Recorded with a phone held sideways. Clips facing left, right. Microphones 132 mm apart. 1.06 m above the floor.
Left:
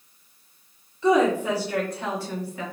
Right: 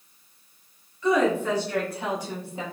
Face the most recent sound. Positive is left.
turn(degrees=-25)  # may be behind; listen again after turning